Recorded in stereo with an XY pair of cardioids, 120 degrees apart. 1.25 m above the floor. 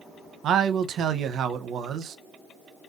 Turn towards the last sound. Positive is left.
turn(degrees=-55)